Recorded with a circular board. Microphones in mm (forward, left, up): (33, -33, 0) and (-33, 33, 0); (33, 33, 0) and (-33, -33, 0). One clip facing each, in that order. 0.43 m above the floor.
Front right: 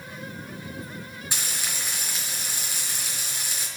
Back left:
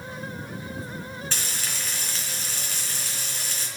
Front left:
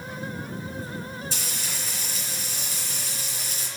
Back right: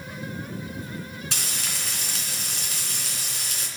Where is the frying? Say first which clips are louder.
Even, back right 1 dB; 120° right, 3.5 m.